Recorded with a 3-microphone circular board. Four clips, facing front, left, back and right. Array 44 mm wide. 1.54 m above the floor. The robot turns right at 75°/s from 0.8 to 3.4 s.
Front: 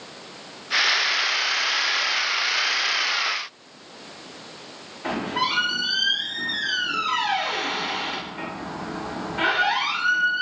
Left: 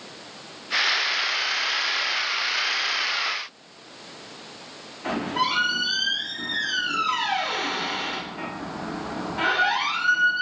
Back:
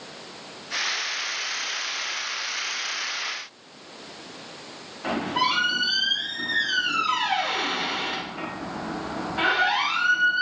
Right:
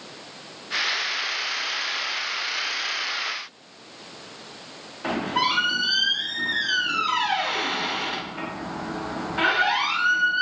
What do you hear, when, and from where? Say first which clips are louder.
5.0 s a squeak: right 1 dB, back 1 dB; 110° right, 1.3 m